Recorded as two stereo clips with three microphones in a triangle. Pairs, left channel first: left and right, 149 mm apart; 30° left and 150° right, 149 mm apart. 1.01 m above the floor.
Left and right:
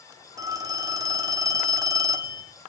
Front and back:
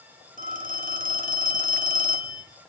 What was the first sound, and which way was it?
A phone ringing, 155° right.